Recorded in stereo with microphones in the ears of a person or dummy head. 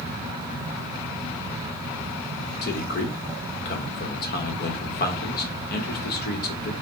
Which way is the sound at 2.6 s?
50° left (ahead or behind).